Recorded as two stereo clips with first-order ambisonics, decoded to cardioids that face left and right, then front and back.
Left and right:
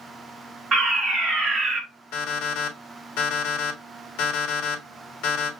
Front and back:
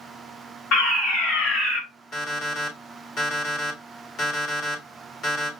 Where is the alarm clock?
60° left, 1.5 m.